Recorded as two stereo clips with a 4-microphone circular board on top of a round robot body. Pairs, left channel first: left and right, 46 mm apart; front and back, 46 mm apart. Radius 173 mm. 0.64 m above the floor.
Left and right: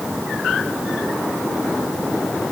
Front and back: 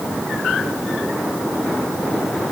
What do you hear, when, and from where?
Only background noise.